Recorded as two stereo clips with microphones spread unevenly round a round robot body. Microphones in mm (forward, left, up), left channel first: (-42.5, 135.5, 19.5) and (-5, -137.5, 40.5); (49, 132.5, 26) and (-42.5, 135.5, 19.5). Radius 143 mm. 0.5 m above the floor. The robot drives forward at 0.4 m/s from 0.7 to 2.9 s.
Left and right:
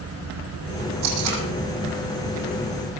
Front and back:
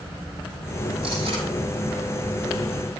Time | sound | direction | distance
1.0 | tape being pulled | 115° right | 7 m